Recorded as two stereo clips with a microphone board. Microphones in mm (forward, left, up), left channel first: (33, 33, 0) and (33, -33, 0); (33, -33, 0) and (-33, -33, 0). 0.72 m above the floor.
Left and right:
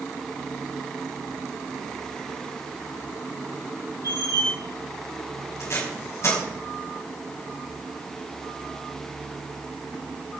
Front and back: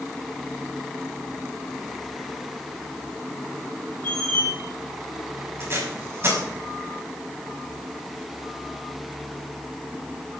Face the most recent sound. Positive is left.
turn(degrees=130)